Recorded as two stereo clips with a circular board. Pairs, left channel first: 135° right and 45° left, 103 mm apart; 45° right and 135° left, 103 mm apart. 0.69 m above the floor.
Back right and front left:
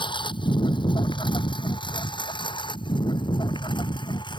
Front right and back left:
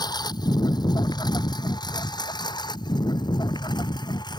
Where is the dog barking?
No dog barking in this recording.